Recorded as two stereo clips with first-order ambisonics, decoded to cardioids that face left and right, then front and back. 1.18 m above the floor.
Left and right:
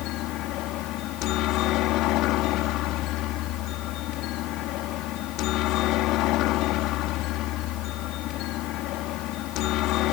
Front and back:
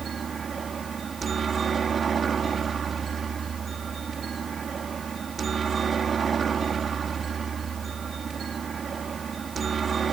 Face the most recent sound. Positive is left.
turn(degrees=115)